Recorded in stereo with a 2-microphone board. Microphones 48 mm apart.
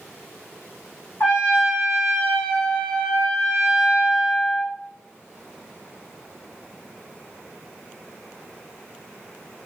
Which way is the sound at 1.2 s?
55° left (ahead or behind).